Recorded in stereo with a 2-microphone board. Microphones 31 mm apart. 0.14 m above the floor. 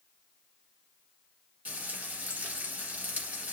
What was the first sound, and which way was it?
Frying, 55° right (ahead or behind).